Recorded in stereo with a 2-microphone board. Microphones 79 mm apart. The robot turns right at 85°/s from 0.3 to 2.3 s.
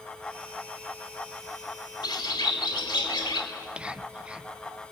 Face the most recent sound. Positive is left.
turn(degrees=-15)  # may be behind; listen again after turning